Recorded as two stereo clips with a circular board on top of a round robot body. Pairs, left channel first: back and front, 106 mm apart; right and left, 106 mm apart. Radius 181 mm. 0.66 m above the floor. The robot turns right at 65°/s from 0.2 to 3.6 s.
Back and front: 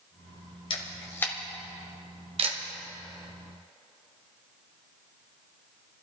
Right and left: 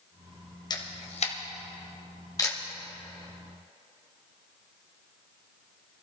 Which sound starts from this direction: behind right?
A camera shutter, at 0.7 s.